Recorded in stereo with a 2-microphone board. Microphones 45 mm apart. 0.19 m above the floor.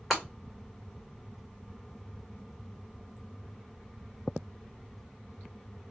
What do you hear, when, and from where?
0.1 s breaking glass: 5° left (ahead or behind), 2 m